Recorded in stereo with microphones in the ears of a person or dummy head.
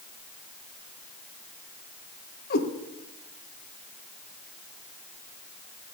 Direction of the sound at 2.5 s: 55° left (ahead or behind).